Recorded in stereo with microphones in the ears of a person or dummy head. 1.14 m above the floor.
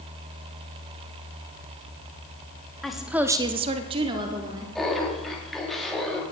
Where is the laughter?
Centre (ahead or behind), 2.5 m.